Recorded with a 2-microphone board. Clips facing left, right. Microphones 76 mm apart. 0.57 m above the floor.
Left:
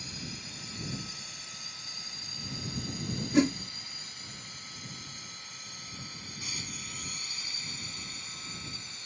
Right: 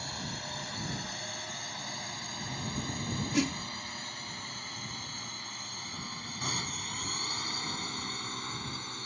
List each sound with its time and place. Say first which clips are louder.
0.0 s a drone: right 4 dB; 55° right (ahead or behind); by 9.1 s 50° right (ahead or behind)
3.3 s a whoosh: left 6 dB; 30° left (ahead or behind)